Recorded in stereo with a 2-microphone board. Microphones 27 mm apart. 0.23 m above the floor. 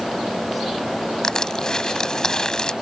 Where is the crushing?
25° left (ahead or behind).